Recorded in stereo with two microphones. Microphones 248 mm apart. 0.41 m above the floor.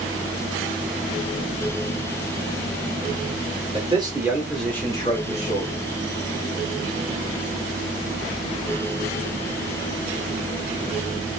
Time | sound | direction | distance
3.7 | a man speaking | 25° right (ahead or behind) | 1.0 m